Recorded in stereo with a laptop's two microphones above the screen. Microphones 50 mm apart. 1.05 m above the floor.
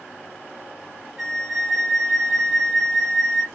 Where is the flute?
15° right (ahead or behind), 0.9 m.